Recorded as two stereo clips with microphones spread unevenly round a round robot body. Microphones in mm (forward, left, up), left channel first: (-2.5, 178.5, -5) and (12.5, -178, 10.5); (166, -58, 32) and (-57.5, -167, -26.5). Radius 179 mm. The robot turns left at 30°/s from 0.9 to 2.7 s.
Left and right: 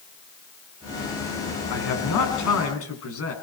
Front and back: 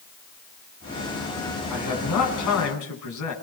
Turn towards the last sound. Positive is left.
turn(degrees=40)